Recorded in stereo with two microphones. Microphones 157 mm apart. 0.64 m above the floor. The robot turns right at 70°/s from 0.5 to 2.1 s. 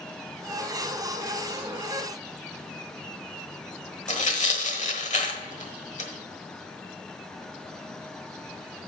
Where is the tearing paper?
50° left (ahead or behind), 1.2 m.